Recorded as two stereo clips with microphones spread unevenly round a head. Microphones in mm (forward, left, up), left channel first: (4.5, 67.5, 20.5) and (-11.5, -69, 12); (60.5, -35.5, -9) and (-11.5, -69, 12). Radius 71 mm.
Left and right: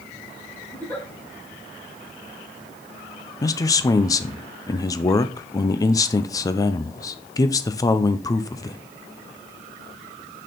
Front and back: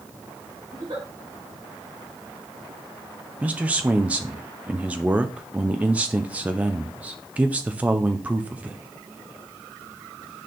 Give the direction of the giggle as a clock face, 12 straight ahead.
7 o'clock.